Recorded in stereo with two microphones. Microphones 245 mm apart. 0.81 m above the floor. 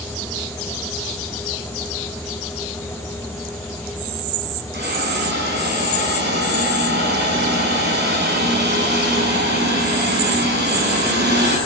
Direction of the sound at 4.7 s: 45° right (ahead or behind).